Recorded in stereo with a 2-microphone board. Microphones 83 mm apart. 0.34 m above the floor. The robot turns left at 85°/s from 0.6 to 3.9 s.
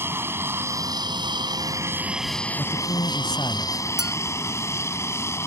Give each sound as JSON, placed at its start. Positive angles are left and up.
{"t": 0.0, "sound": "an aircraft", "side_deg": -30}
{"t": 2.6, "sound": "a woman speaking", "azimuth_deg": 135}
{"t": 4.0, "sound": "a clink", "side_deg": -5}